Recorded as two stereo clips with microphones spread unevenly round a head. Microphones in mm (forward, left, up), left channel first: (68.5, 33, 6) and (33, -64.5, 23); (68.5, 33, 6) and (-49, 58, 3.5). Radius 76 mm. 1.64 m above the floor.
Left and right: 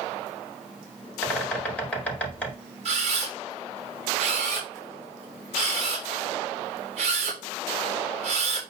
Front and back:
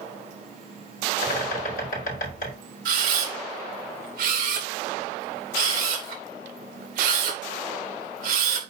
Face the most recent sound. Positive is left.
turn(degrees=-160)